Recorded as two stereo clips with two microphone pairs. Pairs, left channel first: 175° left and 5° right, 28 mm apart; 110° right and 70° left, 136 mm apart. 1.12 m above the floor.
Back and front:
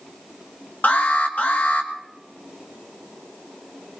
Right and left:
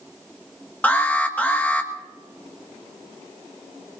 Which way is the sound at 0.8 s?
170° left.